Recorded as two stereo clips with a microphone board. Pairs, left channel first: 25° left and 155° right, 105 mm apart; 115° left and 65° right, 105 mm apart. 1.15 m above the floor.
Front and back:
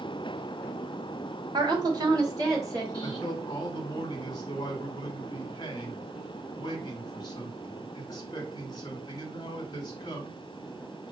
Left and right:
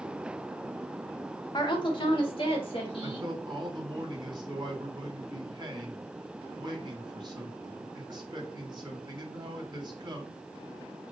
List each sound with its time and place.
1.5 s a woman speaking: 160° left, 1.0 m; by 3.3 s 145° left, 2 m
3.0 s a man speaking: 25° right, 1.3 m